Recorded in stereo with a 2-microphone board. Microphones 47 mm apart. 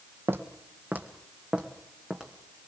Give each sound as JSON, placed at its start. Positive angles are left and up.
{"t": 0.3, "sound": "footsteps", "side_deg": -55, "distance_m": 2.5}